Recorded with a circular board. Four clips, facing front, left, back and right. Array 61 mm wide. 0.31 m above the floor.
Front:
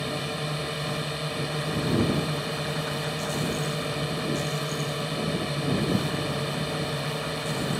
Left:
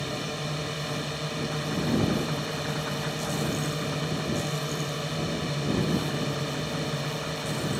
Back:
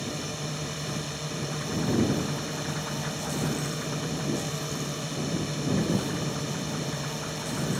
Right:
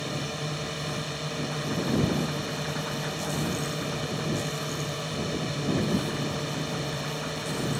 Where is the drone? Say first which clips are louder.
Even, front 4 dB; 5° left.